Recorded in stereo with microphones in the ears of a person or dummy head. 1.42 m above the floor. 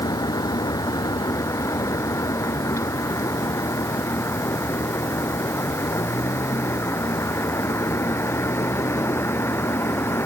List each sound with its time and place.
0.0 s a vehicle: 20° left (ahead or behind); by 10.3 s 10° left (ahead or behind)